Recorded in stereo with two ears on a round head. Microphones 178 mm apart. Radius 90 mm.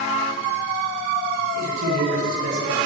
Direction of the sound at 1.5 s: 80° right.